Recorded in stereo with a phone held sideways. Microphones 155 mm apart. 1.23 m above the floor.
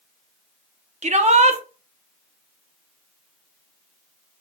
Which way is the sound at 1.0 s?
50° right (ahead or behind).